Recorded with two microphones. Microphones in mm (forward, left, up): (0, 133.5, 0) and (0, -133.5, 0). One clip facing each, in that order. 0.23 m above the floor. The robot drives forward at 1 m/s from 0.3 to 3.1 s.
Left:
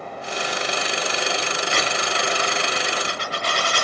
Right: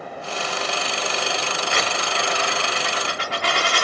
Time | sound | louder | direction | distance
1.7 | a dropped coin | even | 55° right (ahead or behind) | 3.5 m